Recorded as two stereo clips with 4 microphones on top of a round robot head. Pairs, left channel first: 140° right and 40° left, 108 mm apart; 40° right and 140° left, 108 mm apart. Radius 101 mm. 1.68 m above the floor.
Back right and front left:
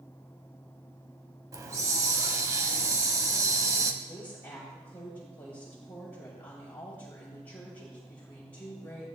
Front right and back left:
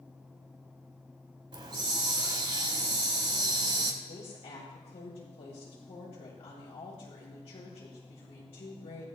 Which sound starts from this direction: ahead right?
A woman speaking, at 4.0 s.